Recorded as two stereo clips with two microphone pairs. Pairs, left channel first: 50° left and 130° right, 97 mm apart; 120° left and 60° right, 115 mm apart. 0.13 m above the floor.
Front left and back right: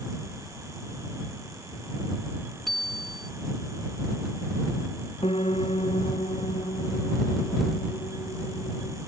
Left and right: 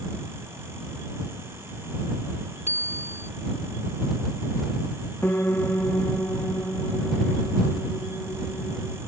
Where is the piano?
45° left.